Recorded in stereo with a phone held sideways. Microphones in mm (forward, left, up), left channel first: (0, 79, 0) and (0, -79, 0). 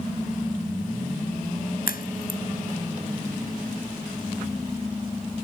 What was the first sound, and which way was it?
A crack, 80° left.